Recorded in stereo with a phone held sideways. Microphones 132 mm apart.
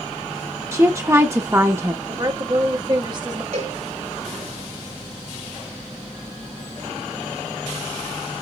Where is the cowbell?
65° right (ahead or behind), 4 m.